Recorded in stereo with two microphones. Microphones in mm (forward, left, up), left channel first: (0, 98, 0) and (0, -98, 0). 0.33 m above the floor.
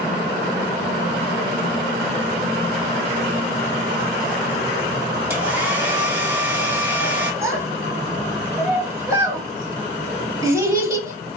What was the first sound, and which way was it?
A hair dryer, 10° right (ahead or behind).